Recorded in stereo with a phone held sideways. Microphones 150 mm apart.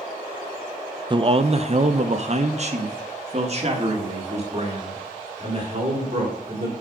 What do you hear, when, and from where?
1.1 s a man speaking: 30° right (ahead or behind), 0.5 m; by 6.7 s 40° right (ahead or behind), 3.5 m